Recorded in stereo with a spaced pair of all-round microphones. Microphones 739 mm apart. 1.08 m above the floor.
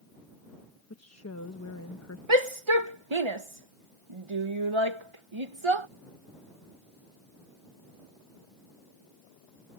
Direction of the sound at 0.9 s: 20° left (ahead or behind).